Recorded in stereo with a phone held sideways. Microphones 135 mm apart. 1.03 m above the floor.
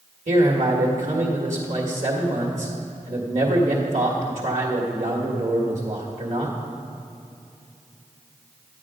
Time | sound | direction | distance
0.3 | a man speaking | 65° right (ahead or behind) | 1.5 m